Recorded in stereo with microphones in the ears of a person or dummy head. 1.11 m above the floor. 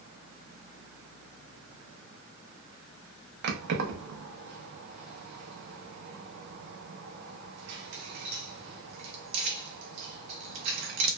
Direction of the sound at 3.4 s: 55° right (ahead or behind).